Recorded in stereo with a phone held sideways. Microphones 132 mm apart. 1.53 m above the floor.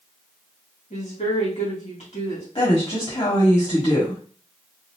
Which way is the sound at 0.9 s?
60° left (ahead or behind).